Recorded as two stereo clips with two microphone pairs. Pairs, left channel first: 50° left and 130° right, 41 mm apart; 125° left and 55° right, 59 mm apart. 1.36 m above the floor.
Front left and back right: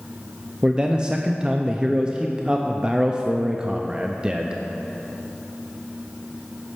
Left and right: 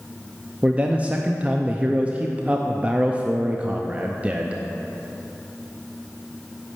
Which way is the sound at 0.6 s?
100° right.